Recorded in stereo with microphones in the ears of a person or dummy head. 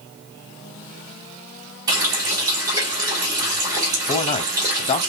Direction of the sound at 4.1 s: 35° left (ahead or behind).